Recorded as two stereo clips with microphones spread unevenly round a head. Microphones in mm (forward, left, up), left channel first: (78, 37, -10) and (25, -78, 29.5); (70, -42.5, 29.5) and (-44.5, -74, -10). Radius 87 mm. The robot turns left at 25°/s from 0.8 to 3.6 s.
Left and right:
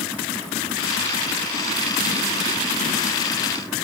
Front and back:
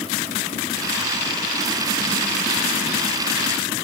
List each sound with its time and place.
Only background noise.